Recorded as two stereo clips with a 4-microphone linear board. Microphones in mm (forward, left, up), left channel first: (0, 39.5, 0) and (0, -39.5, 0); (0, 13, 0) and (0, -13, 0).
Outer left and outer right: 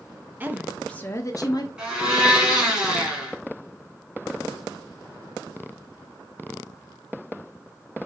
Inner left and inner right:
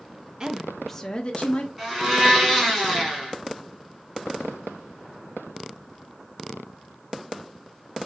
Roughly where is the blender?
Centre.